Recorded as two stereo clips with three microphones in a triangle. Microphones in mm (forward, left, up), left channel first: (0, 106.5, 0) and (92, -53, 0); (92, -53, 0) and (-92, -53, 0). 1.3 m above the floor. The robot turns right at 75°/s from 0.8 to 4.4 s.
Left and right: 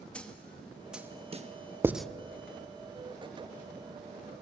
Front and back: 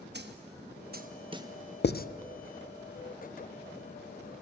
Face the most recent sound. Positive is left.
turn(degrees=-150)